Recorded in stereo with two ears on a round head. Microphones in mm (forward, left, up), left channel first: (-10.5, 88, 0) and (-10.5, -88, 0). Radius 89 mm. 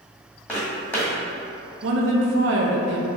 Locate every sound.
0.5 s footsteps: 10° left (ahead or behind), 1.6 m
1.8 s a woman speaking: 65° right (ahead or behind), 0.7 m